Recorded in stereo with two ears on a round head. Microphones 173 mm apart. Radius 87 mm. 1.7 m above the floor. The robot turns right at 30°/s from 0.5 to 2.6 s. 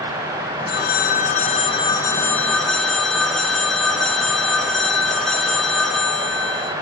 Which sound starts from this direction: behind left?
A phone ringing, at 0.7 s.